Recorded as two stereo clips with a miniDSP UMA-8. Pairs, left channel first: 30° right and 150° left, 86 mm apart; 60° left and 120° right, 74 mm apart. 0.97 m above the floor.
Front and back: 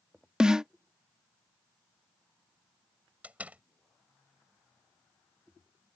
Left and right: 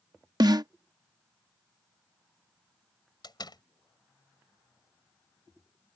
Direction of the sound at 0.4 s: 130° right.